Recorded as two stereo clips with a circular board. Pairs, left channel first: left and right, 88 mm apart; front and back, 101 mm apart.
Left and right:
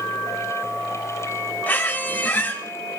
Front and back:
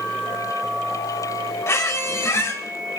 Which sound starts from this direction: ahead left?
A squeak, at 1.7 s.